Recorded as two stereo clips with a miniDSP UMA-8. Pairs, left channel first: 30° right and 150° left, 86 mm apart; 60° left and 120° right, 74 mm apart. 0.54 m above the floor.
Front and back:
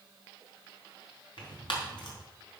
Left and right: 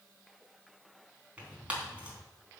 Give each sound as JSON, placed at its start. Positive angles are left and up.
{"t": 1.4, "sound": "tearing paper", "azimuth_deg": -50, "distance_m": 3.5}